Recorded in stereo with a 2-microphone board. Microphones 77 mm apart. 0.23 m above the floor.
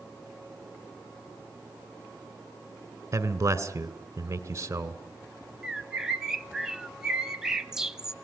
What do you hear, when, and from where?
3.1 s a man speaking: 40° right (ahead or behind), 2 m
5.6 s a bird: 10° right (ahead or behind), 0.7 m